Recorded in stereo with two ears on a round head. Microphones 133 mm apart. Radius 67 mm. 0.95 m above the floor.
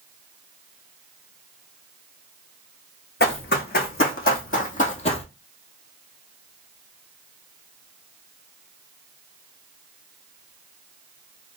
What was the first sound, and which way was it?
Running footsteps, 75° left (ahead or behind).